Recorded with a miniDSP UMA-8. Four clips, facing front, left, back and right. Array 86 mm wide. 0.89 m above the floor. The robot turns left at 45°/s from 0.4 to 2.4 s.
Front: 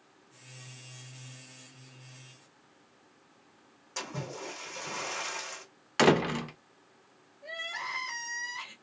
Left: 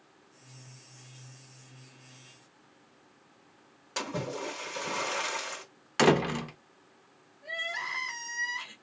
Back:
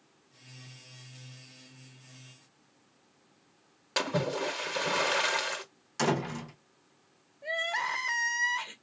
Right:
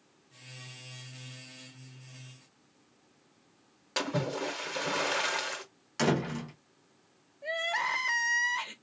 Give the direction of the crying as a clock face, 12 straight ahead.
4 o'clock.